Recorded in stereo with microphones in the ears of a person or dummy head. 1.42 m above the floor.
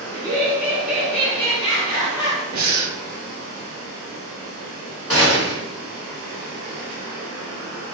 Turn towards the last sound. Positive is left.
turn(degrees=5)  # may be behind; listen again after turning